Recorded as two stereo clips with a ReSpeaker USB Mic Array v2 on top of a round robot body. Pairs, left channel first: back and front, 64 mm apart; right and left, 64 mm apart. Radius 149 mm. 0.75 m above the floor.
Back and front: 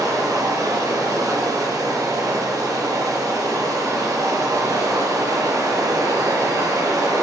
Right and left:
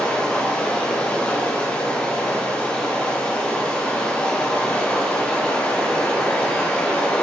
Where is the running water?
15° right, 1.3 m.